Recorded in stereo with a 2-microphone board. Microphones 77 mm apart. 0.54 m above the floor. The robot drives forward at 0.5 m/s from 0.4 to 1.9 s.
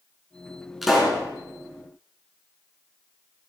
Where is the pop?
Centre (ahead or behind), 4.5 m.